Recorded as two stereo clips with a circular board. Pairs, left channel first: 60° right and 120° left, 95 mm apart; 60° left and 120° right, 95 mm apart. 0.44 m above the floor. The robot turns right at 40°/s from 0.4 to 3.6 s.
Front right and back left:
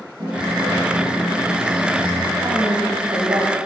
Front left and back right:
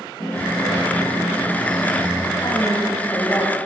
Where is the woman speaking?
95° left, 2.5 m; by 3.6 s 140° left, 2.5 m.